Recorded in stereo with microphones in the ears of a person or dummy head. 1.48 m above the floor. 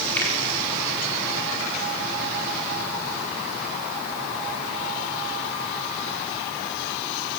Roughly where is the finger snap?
Centre.